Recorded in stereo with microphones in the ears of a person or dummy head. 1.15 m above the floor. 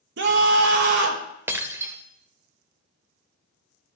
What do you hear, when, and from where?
0.2 s a scream: 60° right (ahead or behind), 1.2 m
1.5 s breaking glass: 10° right (ahead or behind), 0.8 m